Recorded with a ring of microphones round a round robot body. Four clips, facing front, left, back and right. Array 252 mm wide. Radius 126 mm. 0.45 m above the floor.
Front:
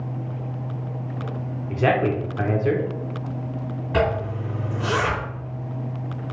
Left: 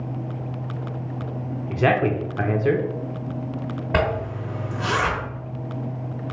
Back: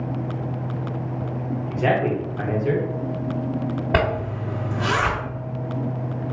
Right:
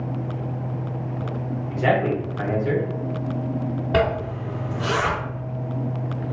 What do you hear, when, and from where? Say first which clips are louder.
1.7 s a man speaking: left 1 dB, front 1 dB; 70° left, 1.0 m
3.9 s a zipper: right 1 dB, front 2 dB; 170° left, 2.5 m